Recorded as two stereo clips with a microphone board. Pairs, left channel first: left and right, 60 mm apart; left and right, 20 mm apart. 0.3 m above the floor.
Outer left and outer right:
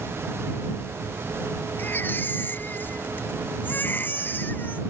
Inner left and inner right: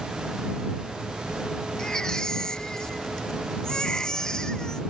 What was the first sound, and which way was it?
A baby crying, 30° left (ahead or behind).